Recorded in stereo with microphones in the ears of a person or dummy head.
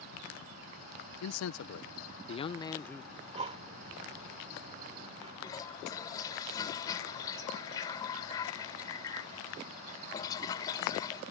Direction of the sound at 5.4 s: 20° left (ahead or behind).